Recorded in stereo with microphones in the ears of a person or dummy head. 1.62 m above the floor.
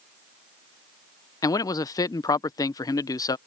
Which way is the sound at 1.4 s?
25° left (ahead or behind).